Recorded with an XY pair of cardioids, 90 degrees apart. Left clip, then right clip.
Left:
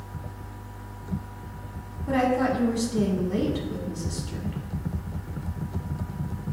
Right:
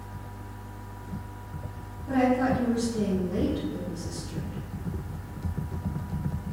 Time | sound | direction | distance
2.1 | a woman speaking | 65° left | 1.1 m